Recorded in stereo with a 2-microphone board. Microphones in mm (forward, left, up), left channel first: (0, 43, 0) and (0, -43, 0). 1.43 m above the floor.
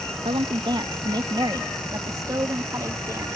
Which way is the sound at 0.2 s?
70° right (ahead or behind).